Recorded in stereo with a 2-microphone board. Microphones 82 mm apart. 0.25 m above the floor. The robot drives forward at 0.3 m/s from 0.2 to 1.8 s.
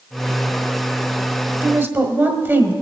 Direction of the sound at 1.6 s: 25° right (ahead or behind).